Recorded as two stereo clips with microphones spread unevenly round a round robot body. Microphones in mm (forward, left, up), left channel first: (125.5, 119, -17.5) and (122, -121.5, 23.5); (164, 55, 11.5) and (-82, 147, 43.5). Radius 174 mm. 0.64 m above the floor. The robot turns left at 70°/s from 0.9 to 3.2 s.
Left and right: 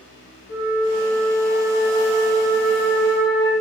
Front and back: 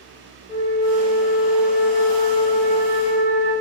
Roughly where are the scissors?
No scissors in this recording.